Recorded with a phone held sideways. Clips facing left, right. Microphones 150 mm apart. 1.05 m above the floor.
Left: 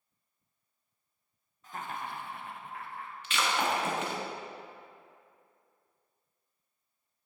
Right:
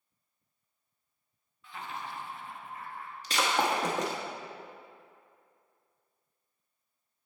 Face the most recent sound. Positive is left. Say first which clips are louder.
# right 2 dB
turn(degrees=-40)  # may be behind; listen again after turning